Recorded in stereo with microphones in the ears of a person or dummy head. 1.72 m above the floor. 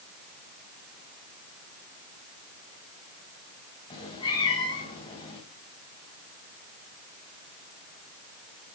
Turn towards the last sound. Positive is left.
turn(degrees=25)  # may be behind; listen again after turning